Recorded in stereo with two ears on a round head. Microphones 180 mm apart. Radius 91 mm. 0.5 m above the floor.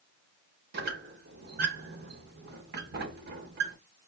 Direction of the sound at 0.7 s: 50° right (ahead or behind).